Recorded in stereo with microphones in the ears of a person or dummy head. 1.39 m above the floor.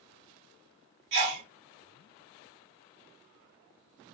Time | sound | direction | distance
1.1 | a sneeze | 50° right (ahead or behind) | 0.5 m